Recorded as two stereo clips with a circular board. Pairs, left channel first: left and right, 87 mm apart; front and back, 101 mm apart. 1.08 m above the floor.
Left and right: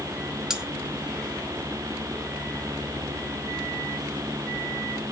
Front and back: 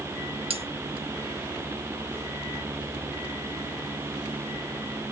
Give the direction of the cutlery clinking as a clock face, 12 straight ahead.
6 o'clock.